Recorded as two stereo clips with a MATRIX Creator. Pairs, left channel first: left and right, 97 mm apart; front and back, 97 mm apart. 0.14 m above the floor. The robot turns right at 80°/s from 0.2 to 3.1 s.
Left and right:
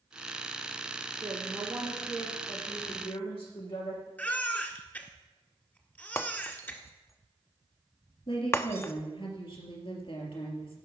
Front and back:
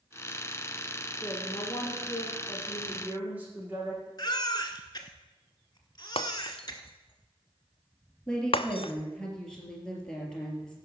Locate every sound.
1.2 s a woman speaking: 45° right, 7.5 m; by 4.1 s 105° left, 7.5 m
4.2 s a baby crying: 25° left, 1.5 m
6.2 s breaking glass: 25° left, 1.0 m
8.3 s a woman speaking: 85° left, 3.5 m